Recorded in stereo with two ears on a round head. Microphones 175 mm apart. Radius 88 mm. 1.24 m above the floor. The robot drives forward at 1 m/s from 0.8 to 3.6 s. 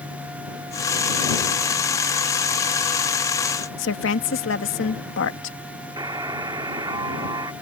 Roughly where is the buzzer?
Right.